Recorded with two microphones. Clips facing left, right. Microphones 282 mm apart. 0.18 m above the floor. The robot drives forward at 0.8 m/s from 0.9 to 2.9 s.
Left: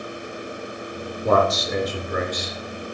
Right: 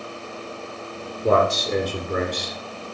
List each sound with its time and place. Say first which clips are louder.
1.2 s a man speaking: right 1 dB; 30° right (ahead or behind), 3 m; by 2.6 s 40° right (ahead or behind), 2.5 m